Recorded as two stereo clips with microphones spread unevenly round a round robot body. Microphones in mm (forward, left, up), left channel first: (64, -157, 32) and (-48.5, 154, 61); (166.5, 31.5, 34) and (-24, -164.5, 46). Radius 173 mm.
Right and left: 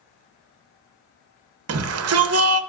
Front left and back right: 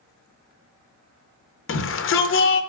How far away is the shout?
About 0.8 m.